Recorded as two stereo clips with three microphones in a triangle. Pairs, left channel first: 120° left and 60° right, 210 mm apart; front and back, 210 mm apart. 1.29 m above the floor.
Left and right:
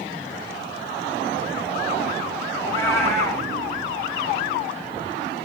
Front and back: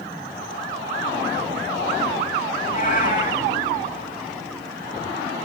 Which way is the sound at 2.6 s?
40° left.